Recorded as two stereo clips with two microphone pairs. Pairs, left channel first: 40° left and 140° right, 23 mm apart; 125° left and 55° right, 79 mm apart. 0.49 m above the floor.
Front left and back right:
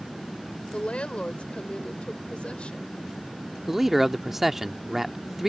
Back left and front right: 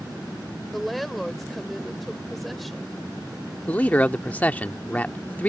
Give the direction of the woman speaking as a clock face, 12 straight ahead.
11 o'clock.